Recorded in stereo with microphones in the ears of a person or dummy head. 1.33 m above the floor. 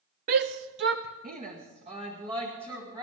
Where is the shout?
45° right (ahead or behind), 0.6 m; by 3.0 s 25° right (ahead or behind), 3 m.